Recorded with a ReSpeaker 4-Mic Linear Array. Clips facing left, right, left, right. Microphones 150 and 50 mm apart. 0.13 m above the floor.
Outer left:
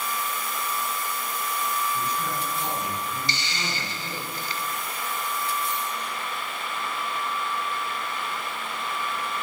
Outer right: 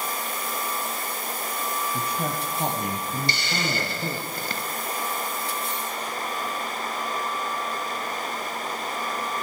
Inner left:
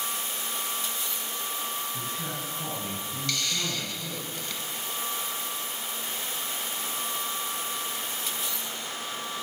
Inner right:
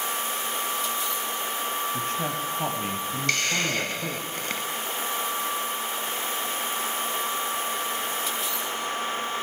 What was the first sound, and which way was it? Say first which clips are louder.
A man speaking: outer right 1 dB, inner right 6 dB; 65° right (ahead or behind).